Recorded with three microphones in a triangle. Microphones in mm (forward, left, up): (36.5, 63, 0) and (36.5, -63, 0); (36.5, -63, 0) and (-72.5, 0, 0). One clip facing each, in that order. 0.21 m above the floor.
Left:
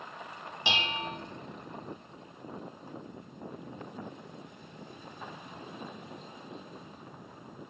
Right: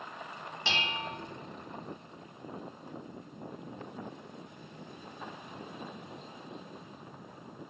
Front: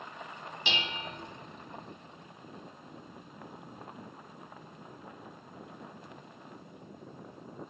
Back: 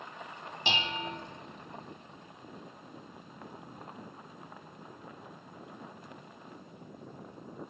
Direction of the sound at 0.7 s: 150° left.